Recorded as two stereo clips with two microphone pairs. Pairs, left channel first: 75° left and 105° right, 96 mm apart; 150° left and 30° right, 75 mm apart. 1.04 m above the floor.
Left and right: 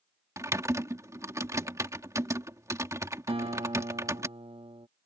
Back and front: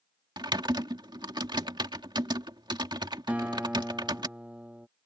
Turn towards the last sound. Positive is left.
turn(degrees=-105)